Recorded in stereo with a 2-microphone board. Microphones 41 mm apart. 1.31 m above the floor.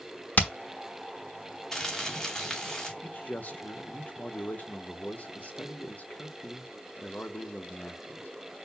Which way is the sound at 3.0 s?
40° left (ahead or behind).